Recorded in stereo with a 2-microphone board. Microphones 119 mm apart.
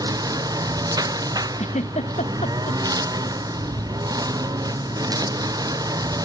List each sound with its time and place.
0.0 s a lawn mower: 30° right (ahead or behind)
1.6 s a giggle: 75° left (ahead or behind)